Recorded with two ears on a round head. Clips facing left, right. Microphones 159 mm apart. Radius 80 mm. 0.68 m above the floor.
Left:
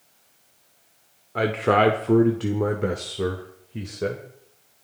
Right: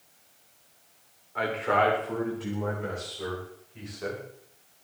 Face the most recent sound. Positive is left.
turn(degrees=55)  # may be behind; listen again after turning